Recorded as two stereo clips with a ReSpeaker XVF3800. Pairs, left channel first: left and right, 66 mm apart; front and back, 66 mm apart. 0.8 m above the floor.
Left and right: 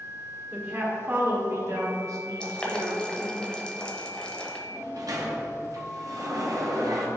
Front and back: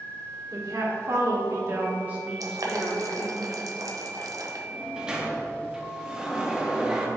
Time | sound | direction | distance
0.5 | a woman speaking | 155° right | 1.8 m
2.4 | boiling | 165° left | 0.9 m
4.7 | a sliding door | 105° right | 0.9 m